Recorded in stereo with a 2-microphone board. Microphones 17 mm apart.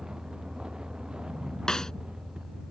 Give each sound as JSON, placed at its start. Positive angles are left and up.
{"t": 0.0, "sound": "a vehicle", "side_deg": -50}
{"t": 1.7, "sound": "a snare drum", "side_deg": 45}